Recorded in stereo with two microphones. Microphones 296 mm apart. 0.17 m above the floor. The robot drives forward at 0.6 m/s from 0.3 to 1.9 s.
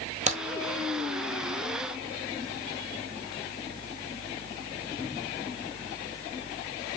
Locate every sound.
0.3 s a crack: 25° right (ahead or behind), 1.0 m